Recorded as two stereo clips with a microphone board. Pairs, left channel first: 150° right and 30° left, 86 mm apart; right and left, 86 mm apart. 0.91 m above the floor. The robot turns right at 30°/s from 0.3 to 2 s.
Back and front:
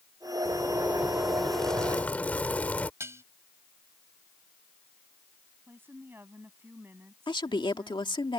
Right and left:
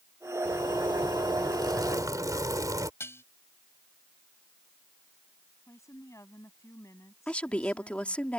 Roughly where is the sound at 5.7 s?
Ahead right.